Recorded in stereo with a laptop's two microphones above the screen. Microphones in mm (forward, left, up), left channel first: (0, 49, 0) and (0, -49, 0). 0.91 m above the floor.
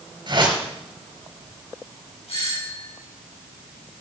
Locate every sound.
0.3 s a whoosh: 50° right (ahead or behind), 4.5 m
2.3 s a doorbell: 80° left, 8 m